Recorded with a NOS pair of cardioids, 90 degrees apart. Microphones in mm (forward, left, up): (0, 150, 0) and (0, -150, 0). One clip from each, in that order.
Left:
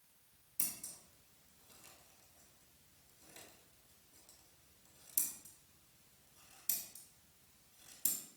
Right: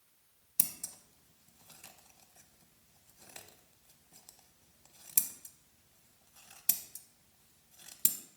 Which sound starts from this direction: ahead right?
Scissors, at 0.6 s.